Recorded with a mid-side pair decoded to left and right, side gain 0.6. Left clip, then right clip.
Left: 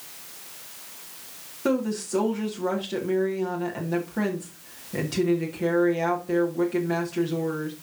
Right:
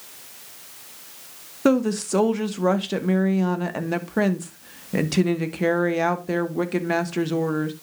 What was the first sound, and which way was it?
A woman speaking, 45° right.